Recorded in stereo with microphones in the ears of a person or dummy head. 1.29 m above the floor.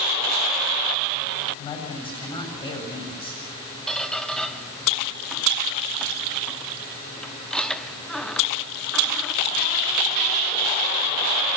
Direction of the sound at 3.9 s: 5° left (ahead or behind).